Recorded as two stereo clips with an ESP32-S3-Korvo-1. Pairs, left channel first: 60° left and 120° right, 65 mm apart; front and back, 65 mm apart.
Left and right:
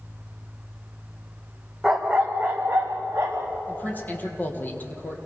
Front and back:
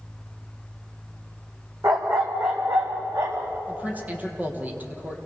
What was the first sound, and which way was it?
A dog barking, 150° left.